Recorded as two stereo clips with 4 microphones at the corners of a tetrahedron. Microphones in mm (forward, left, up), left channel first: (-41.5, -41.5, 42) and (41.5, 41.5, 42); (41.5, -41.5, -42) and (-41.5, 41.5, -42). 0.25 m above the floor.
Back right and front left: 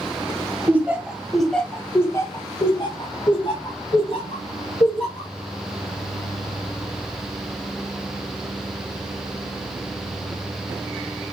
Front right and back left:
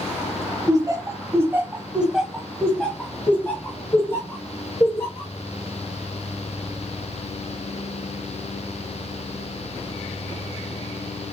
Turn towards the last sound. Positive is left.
turn(degrees=-105)